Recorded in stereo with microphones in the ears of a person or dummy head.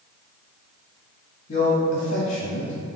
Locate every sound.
1.5 s a man speaking: 50° left (ahead or behind), 0.6 m